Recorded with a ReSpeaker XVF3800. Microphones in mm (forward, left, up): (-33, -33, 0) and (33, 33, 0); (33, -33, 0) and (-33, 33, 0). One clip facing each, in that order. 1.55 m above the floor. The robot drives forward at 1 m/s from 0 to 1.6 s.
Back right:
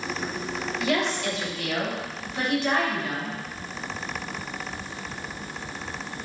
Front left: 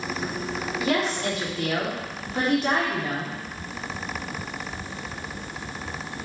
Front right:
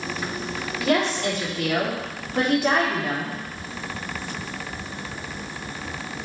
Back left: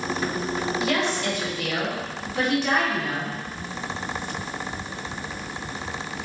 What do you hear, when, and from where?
0.8 s a woman speaking: 5° right, 4 m